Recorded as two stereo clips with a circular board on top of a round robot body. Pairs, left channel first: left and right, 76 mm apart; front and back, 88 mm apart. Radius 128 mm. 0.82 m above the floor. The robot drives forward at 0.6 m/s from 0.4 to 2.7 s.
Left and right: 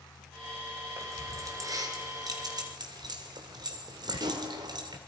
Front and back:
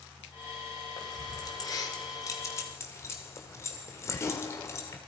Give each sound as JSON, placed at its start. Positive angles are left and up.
{"t": 1.0, "sound": "keys jangling", "azimuth_deg": -40, "distance_m": 3.0}